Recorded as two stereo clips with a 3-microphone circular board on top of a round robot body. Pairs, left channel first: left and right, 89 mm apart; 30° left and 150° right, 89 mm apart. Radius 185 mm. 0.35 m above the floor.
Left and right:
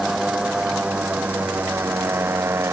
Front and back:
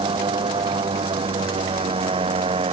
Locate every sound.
0.0 s a motorcycle: 175° right; by 2.7 s 155° right